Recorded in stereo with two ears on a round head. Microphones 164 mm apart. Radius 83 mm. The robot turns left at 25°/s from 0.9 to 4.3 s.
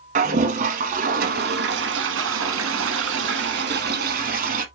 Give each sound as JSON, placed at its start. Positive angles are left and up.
{"t": 0.1, "sound": "a toilet flushing", "azimuth_deg": -45, "distance_m": 1.1}